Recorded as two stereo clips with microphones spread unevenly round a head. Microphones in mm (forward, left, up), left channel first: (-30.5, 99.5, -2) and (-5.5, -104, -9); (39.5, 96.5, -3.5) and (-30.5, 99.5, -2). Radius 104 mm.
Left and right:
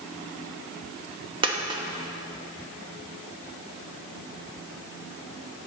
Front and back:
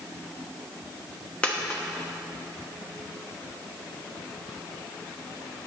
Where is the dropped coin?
50° right, 1.1 m.